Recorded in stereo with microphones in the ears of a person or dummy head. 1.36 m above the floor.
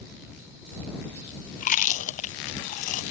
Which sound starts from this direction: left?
Chewing, at 1.6 s.